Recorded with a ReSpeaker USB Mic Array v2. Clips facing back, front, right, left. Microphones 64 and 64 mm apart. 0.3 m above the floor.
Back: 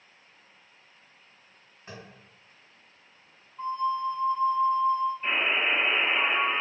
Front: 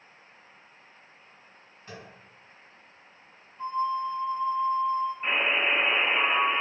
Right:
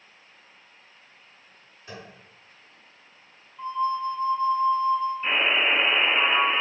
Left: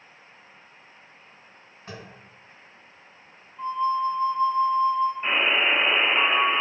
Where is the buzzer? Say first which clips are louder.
Front 1 dB, left 1 dB; 50° left, 1.7 m.